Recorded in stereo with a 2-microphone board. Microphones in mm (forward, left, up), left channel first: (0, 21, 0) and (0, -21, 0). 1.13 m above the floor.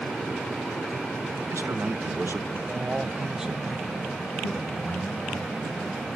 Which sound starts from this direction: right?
A man speaking, at 1.5 s.